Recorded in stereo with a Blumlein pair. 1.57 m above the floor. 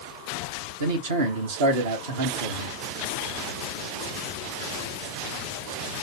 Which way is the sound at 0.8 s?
60° right.